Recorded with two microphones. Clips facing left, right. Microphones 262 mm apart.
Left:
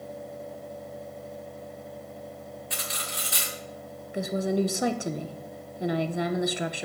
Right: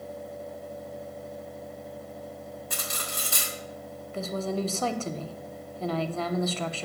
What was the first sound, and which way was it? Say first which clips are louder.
Cutlery clinking: right 1 dB; 50° right (ahead or behind).